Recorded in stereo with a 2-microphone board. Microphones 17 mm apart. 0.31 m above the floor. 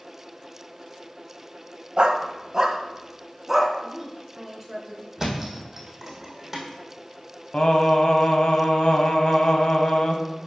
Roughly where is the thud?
Centre.